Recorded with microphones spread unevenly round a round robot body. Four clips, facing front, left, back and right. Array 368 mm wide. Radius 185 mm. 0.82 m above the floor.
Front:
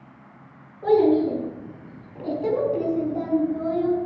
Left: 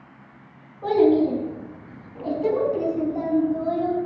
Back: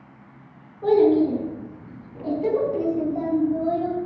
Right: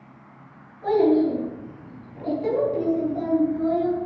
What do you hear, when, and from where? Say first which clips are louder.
0.8 s a child speaking: left 1 dB, back 1 dB; 165° left, 5.5 m; by 4.1 s straight behind, 4 m